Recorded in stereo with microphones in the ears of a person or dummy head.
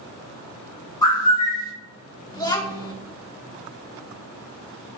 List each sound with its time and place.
1.0 s a bird: 15° left (ahead or behind), 0.8 m
2.3 s a child speaking: 20° left (ahead or behind), 0.6 m